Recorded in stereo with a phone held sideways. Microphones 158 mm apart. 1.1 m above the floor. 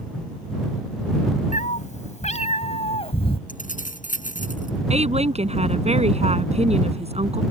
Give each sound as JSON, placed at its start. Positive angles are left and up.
{"t": 1.5, "sound": "a cat meowing", "side_deg": 50}
{"t": 3.5, "sound": "keys jangling", "side_deg": 55}
{"t": 4.9, "sound": "a woman speaking", "side_deg": -40}